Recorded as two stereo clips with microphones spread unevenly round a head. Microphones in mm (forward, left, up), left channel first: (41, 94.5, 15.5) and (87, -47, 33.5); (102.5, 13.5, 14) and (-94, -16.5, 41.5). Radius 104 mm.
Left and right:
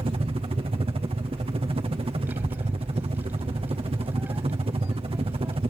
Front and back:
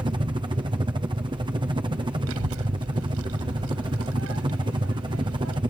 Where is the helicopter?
110° right.